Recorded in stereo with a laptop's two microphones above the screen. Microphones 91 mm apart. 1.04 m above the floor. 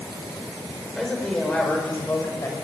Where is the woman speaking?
Centre (ahead or behind), 4.5 m; by 2.5 s 30° left (ahead or behind), 5.5 m.